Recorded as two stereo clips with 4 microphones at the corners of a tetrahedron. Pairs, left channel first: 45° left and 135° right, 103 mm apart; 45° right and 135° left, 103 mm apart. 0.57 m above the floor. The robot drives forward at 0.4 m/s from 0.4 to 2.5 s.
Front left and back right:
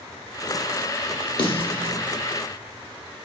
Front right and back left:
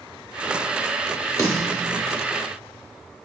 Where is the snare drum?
10° left, 0.7 m; by 1.9 s 15° left, 0.5 m.